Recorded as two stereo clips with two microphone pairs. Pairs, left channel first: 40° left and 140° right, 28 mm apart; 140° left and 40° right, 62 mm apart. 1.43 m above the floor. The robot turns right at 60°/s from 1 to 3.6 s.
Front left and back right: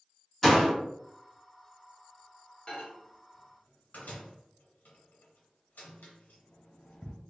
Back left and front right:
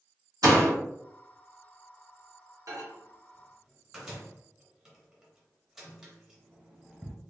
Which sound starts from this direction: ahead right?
A door slam, at 0.4 s.